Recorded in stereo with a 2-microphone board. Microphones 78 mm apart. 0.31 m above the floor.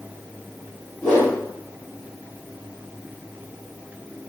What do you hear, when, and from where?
1.0 s a whoosh: 10° left (ahead or behind), 1.9 m